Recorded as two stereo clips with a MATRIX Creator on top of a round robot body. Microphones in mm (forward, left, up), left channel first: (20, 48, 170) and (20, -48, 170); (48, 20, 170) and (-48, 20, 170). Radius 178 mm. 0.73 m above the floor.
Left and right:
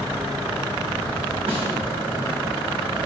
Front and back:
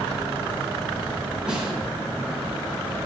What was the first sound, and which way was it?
A snare drum, 95° right.